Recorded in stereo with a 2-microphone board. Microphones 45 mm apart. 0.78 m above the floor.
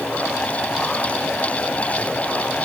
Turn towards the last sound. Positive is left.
No sound to turn to.